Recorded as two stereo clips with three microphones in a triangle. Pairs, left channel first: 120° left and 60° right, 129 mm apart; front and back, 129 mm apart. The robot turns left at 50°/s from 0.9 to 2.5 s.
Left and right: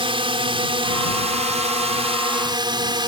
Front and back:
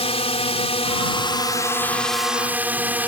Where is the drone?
25° right; by 3.1 s 105° right.